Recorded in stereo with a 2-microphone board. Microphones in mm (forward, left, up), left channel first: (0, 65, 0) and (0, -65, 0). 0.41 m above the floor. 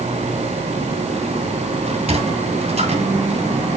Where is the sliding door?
55° right (ahead or behind), 2 m.